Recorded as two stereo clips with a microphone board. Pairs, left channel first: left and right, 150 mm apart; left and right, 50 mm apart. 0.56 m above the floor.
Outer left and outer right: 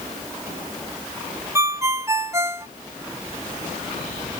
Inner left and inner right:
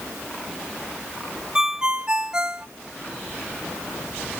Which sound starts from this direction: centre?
A ringtone, at 1.6 s.